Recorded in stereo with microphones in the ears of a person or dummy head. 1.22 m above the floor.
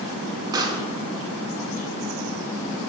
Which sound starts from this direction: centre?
A pop, at 0.5 s.